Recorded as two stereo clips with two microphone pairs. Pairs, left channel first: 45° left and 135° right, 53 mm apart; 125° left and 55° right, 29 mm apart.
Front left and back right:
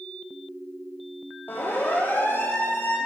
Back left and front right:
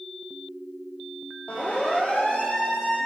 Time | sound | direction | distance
1.5 | a siren | 95° left | 9.5 m